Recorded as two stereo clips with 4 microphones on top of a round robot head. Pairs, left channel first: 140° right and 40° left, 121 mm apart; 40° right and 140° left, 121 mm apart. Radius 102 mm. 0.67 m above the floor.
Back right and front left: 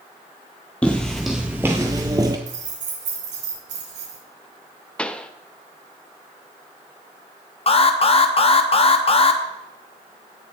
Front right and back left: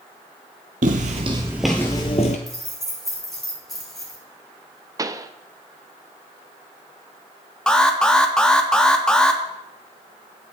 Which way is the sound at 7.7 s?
120° right.